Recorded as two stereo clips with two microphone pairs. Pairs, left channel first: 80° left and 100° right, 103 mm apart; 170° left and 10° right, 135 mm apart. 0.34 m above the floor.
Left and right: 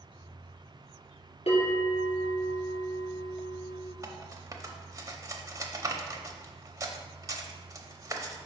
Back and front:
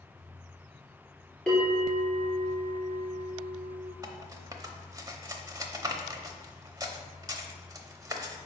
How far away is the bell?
About 2.5 m.